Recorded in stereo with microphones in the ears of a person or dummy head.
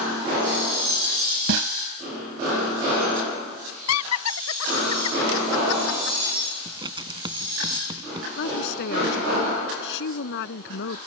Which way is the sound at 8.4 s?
65° left (ahead or behind).